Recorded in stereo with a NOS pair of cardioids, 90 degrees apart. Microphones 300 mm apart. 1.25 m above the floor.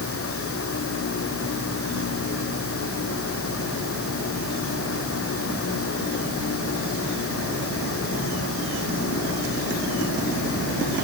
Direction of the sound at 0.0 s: 50° left.